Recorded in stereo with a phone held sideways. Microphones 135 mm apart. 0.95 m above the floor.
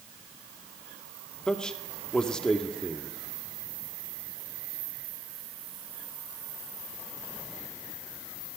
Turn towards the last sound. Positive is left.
turn(degrees=5)  # may be behind; listen again after turning